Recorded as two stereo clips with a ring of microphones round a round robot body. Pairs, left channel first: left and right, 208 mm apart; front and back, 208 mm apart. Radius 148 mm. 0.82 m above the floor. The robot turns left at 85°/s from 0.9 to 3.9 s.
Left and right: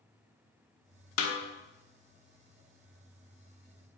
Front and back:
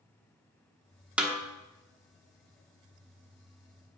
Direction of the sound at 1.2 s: 95° left.